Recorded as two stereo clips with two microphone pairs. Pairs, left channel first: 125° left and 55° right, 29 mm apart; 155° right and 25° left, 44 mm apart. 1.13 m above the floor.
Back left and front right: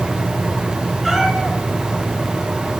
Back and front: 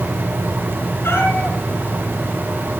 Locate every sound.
1.0 s a cat meowing: 140° right, 7 m